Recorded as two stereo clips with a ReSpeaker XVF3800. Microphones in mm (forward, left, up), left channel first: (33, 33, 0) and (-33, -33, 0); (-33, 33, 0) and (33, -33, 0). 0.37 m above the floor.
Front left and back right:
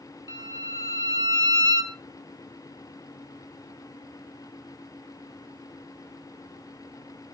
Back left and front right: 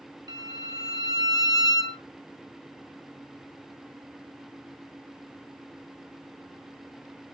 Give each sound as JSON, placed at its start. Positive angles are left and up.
{"t": 0.3, "sound": "a violin", "azimuth_deg": 0, "distance_m": 1.3}